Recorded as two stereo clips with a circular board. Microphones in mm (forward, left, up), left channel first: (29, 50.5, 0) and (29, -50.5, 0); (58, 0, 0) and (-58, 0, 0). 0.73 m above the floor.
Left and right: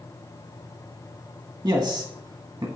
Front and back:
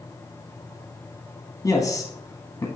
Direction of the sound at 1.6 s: 50° right.